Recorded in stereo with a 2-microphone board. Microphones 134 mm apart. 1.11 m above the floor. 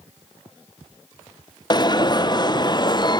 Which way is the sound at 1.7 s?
35° left (ahead or behind).